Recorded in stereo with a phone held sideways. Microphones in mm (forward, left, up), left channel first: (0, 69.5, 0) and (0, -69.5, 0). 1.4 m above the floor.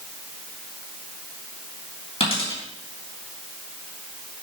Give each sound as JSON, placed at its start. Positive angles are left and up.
{"t": 2.2, "sound": "a dropped coin", "side_deg": 50, "distance_m": 4.0}